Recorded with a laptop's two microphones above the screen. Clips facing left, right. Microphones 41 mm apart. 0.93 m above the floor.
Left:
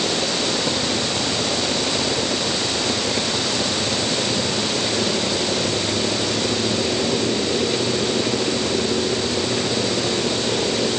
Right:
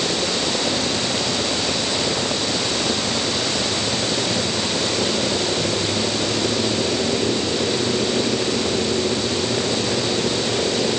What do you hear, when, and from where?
Only background noise.